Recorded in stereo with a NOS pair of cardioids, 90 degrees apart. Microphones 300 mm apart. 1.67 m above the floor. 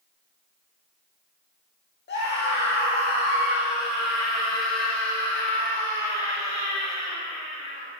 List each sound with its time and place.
2.1 s a scream: 40° left, 2.0 m; by 7.9 s 30° left, 5.5 m